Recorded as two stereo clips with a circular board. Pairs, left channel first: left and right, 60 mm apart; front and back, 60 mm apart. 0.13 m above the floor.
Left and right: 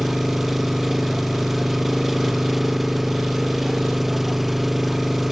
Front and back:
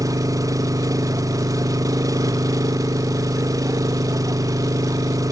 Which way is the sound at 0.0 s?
175° right.